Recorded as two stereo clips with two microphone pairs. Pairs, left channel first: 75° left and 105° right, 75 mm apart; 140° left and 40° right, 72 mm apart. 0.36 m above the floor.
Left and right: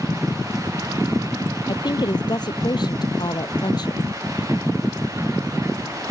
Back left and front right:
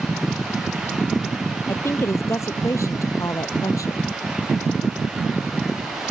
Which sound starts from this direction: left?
A woman speaking, at 1.7 s.